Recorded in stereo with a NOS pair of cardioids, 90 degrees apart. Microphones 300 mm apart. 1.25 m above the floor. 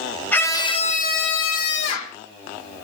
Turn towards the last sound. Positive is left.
turn(degrees=75)